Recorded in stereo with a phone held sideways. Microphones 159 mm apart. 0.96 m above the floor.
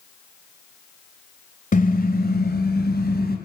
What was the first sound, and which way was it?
A car horn, 55° left (ahead or behind).